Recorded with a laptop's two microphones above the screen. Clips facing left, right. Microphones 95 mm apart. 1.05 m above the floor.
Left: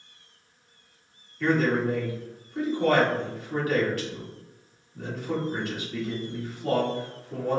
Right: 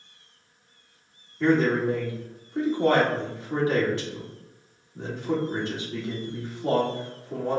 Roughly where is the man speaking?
Right.